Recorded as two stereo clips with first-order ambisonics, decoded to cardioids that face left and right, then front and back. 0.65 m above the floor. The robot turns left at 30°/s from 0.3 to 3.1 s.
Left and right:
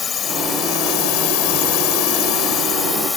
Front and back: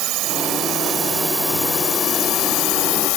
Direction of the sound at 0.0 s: 155° left.